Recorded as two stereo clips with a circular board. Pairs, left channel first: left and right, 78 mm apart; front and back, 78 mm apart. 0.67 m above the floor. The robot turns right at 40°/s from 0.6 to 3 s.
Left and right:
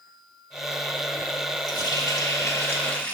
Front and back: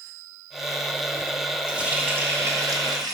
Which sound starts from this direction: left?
A running tap, at 1.7 s.